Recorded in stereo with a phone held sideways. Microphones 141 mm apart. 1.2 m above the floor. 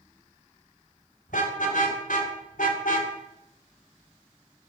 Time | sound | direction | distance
1.3 | a car horn | 70° left (ahead or behind) | 3.5 m